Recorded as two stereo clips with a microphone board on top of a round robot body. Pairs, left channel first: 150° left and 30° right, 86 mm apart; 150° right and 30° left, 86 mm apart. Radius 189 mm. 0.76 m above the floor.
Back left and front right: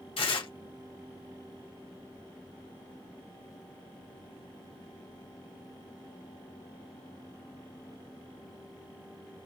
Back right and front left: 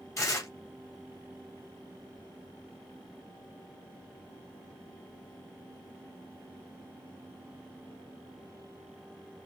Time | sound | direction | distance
0.2 | tearing paper | 155° left | 1.8 m